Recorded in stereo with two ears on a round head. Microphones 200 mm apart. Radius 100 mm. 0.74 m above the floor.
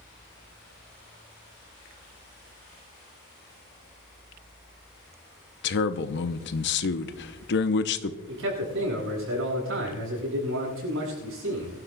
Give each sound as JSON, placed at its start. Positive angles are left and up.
{"t": 5.6, "sound": "a man speaking", "side_deg": 50, "distance_m": 0.8}
{"t": 8.3, "sound": "a man speaking", "side_deg": -65, "distance_m": 7.5}